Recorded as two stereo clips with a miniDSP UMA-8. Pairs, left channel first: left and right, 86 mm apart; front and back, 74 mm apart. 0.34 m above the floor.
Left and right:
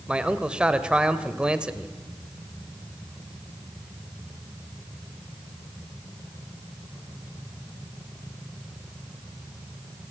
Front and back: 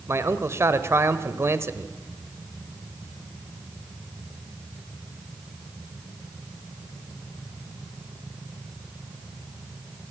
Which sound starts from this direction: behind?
A man speaking, at 0.1 s.